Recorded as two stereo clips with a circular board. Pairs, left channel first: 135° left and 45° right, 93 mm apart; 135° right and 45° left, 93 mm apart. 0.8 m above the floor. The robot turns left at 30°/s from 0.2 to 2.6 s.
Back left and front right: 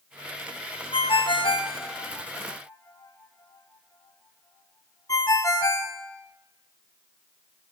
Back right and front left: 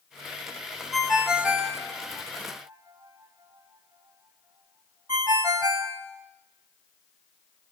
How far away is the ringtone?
About 0.8 m.